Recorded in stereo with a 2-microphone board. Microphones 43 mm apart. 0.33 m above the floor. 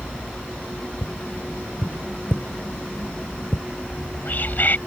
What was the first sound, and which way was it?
Tapping, 45° left (ahead or behind).